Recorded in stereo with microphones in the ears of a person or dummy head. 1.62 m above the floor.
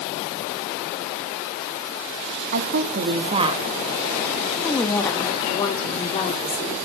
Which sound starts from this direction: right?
A woman speaking, at 2.5 s.